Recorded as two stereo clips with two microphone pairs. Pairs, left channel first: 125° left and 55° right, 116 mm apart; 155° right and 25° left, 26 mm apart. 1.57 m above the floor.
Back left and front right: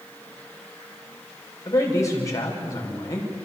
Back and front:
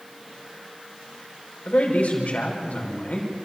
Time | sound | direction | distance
1.6 | a man speaking | 170° right | 6 m